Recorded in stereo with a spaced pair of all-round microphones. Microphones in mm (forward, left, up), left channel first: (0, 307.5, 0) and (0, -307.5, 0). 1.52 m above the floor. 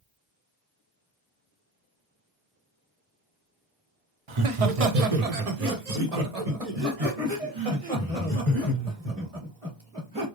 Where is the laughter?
50° right (ahead or behind), 0.8 m; by 10.2 s 55° right (ahead or behind), 3.5 m.